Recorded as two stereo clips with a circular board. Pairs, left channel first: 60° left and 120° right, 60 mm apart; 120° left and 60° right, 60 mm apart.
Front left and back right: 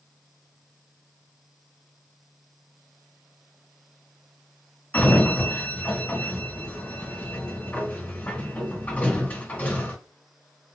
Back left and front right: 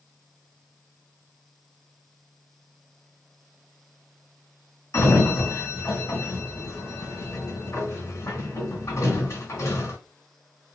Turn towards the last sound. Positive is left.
turn(degrees=120)